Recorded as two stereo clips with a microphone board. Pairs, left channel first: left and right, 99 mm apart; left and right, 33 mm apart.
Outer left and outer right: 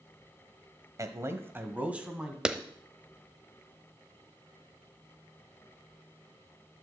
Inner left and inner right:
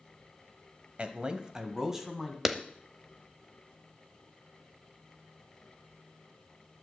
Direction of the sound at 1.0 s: 30° right (ahead or behind).